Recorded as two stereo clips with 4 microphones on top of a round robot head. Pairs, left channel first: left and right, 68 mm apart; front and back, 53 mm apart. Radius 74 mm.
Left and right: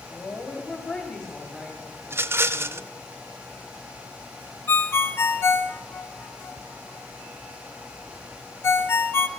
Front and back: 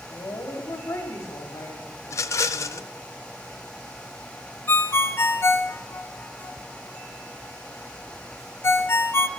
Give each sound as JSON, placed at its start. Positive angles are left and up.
{"t": 0.1, "sound": "a woman speaking", "azimuth_deg": 25, "distance_m": 3.0}
{"t": 2.0, "sound": "a rattle", "azimuth_deg": -35, "distance_m": 0.7}
{"t": 4.7, "sound": "a ringtone", "azimuth_deg": 35, "distance_m": 1.5}